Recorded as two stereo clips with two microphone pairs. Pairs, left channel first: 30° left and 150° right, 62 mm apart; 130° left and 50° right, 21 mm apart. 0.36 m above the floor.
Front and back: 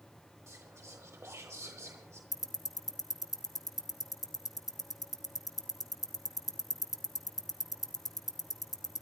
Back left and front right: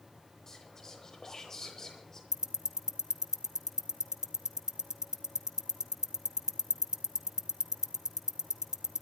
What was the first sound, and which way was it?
Whispering, 170° right.